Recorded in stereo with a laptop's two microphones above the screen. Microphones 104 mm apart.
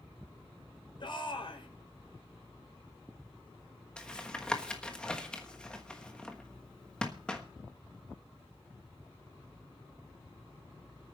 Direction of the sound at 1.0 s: 55° left (ahead or behind).